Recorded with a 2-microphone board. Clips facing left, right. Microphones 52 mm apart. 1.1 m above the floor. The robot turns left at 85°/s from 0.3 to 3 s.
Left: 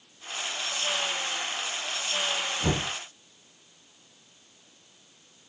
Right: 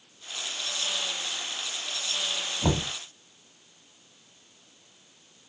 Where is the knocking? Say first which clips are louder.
Right 3 dB; 40° right (ahead or behind), 1.8 m; by 2.9 s 20° right (ahead or behind), 1.8 m.